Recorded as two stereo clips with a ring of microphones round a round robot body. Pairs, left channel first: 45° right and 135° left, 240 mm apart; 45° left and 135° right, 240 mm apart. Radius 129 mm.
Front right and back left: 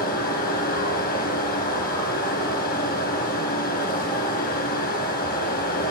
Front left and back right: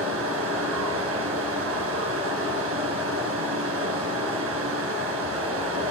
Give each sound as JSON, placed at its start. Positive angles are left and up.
{"t": 0.0, "sound": "running water", "azimuth_deg": -95, "distance_m": 3.5}